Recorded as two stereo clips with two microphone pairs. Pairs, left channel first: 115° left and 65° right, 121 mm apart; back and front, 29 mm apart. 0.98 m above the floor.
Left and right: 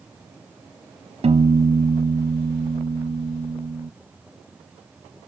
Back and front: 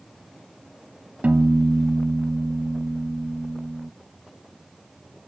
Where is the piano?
40° right, 0.6 m.